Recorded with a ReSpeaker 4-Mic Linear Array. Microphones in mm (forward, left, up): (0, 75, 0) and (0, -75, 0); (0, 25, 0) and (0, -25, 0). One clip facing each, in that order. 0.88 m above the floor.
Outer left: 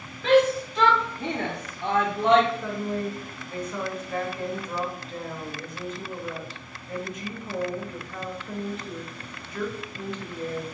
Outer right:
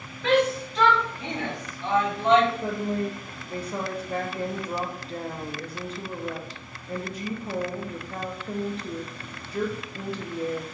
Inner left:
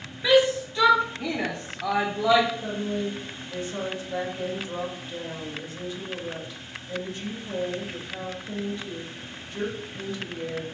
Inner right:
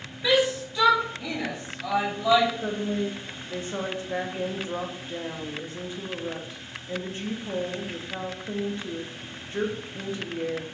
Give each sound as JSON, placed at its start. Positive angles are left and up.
{"t": 0.2, "sound": "a shout", "side_deg": 0, "distance_m": 0.8}
{"t": 2.6, "sound": "a woman speaking", "side_deg": -35, "distance_m": 0.6}